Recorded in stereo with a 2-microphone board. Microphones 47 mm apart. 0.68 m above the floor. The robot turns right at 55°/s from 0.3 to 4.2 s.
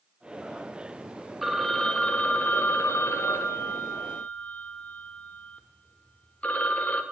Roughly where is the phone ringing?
Ahead.